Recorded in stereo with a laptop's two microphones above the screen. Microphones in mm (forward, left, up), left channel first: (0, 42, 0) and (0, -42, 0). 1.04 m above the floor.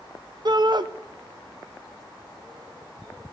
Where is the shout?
55° right (ahead or behind), 0.8 m.